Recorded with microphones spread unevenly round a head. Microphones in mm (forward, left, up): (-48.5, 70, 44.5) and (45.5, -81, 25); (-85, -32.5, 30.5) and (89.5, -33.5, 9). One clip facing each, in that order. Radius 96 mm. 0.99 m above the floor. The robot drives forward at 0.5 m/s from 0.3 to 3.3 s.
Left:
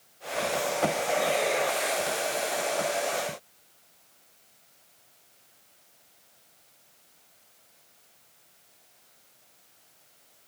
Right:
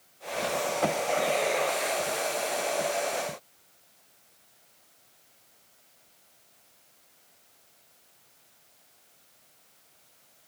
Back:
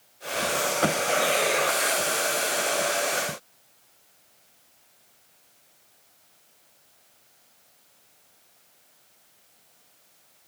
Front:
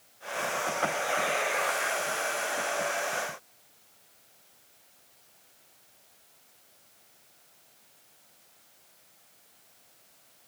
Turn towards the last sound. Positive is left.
No sound to turn to.